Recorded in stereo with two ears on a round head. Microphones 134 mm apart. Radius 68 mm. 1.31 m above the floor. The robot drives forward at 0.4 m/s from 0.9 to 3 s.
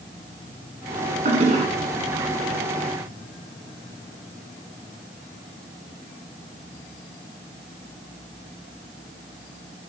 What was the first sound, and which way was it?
A toilet flushing, 50° right (ahead or behind).